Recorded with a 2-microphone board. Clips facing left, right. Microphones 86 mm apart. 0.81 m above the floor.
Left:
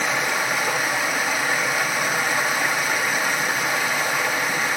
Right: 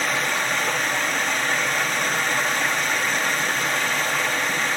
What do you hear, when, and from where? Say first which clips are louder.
0.0 s running water: left 1 dB; 10° left (ahead or behind), 1.0 m